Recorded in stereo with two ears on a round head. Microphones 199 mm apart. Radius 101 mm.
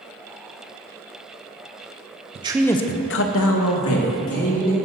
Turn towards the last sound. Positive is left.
turn(degrees=70)  # may be behind; listen again after turning